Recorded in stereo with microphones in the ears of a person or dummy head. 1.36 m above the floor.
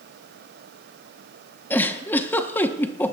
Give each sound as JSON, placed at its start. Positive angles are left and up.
{"t": 1.7, "sound": "a giggle", "side_deg": 10, "distance_m": 1.0}